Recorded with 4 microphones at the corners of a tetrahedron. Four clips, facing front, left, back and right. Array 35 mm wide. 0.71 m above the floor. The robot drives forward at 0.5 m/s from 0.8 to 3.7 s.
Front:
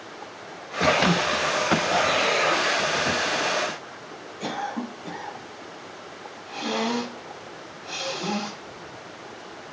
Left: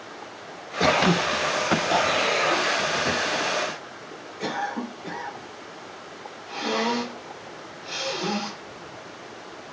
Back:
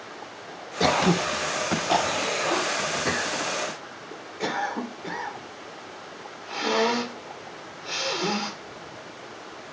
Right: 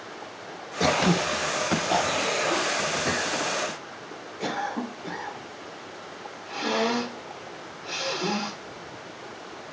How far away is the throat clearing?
About 0.5 m.